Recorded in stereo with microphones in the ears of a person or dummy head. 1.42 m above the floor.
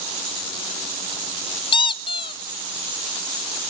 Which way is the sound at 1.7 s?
25° left (ahead or behind).